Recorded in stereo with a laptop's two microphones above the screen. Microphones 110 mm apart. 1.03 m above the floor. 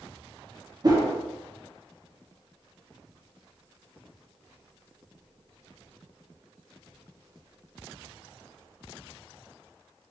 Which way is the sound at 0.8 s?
40° right (ahead or behind).